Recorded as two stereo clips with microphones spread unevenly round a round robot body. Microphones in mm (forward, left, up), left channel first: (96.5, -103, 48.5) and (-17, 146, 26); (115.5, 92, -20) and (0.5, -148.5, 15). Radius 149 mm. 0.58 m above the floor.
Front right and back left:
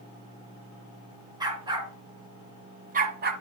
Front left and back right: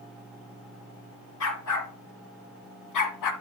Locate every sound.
1.4 s a dog barking: 40° left, 2.5 m; by 3.3 s 60° left, 1.5 m